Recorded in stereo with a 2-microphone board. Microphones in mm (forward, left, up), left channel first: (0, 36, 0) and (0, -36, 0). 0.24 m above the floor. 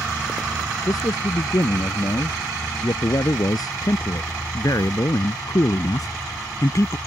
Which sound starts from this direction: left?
A man speaking, at 0.8 s.